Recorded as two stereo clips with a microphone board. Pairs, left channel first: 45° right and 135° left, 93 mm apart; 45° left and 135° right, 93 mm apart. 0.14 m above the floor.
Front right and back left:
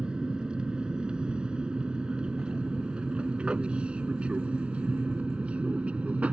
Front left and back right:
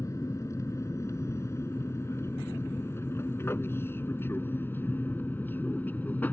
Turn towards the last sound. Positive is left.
turn(degrees=80)